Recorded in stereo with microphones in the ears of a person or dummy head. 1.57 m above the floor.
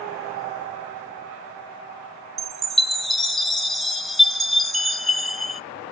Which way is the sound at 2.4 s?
Centre (ahead or behind).